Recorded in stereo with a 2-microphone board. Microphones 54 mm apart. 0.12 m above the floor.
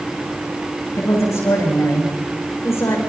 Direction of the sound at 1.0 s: 80° left.